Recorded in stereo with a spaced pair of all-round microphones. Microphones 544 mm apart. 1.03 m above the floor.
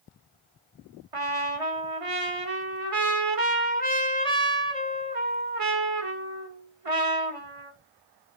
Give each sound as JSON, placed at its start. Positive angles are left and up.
{"t": 1.1, "sound": "a trumpet", "side_deg": -75, "distance_m": 1.4}